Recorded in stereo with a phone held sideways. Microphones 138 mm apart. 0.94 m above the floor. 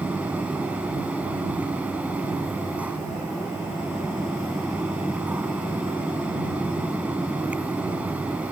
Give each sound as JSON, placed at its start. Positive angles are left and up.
{"t": 0.0, "sound": "a fan", "side_deg": -10}